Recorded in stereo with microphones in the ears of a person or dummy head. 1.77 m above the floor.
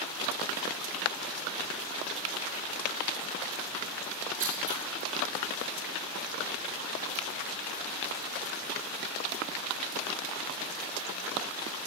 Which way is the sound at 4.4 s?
40° right (ahead or behind).